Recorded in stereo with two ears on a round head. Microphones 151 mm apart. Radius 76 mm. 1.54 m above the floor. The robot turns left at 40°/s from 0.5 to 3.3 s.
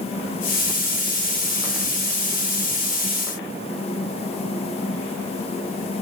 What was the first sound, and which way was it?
Only background noise.